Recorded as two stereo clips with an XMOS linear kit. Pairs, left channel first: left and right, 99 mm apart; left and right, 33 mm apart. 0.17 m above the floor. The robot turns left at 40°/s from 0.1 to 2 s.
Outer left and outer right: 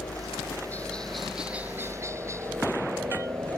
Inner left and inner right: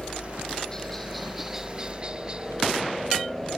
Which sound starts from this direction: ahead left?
A helicopter, at 0.0 s.